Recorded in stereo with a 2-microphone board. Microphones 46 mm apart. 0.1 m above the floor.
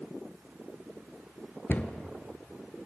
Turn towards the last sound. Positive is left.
turn(degrees=45)  # may be behind; listen again after turning